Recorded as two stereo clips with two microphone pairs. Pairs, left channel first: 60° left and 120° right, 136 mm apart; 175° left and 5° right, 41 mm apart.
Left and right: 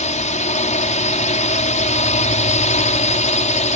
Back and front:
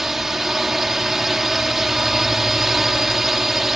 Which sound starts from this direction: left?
A drone, at 0.0 s.